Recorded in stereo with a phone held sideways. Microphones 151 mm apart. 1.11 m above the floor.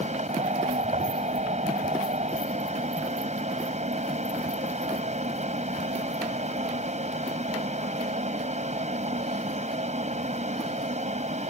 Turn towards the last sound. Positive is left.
turn(degrees=-50)  # may be behind; listen again after turning